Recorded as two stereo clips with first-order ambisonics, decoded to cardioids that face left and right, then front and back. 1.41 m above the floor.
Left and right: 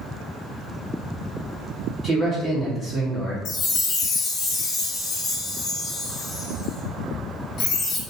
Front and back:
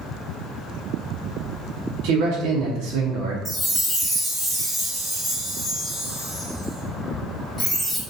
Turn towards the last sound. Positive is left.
turn(degrees=95)